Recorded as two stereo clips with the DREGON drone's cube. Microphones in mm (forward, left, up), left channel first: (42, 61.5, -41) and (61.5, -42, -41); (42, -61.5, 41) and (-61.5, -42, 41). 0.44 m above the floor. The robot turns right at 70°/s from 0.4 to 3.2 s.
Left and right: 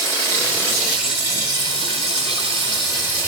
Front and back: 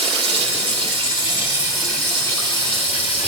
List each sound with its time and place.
0.0 s running water: 160° left, 6 m; by 3.3 s 5° right, 6 m